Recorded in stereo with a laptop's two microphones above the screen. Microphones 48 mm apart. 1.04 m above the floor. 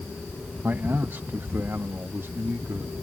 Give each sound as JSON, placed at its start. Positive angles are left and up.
{"t": 0.6, "sound": "a man speaking", "side_deg": -50}